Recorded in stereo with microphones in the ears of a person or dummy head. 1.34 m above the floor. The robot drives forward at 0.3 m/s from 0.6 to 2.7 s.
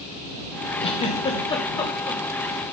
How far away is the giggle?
About 0.7 m.